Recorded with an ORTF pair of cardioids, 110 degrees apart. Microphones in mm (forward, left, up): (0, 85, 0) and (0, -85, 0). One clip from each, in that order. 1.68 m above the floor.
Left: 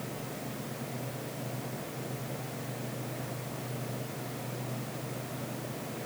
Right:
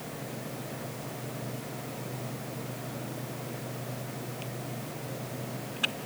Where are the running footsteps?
No running footsteps in this recording.